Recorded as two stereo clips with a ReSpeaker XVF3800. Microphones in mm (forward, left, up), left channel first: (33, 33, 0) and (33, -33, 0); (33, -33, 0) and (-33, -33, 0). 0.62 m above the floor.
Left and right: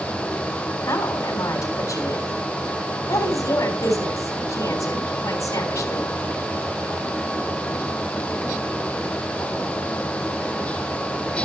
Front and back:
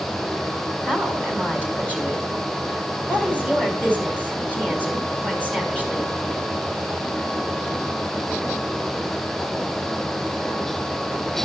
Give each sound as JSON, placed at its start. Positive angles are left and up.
{"t": 0.9, "sound": "a woman speaking", "azimuth_deg": 70, "distance_m": 4.0}